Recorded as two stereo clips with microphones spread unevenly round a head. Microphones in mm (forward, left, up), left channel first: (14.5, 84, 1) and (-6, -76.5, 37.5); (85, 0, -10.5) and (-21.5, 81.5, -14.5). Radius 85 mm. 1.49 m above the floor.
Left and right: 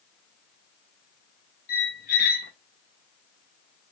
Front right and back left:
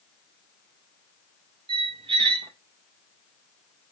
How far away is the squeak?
About 0.5 m.